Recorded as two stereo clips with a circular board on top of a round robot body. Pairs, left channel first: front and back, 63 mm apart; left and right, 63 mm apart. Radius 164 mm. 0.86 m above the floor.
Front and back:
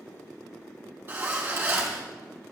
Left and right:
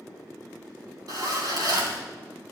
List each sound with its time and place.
1.1 s a zipper: 125° right, 3 m